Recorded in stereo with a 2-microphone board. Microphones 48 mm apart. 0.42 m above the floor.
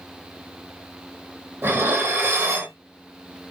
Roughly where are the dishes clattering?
Right.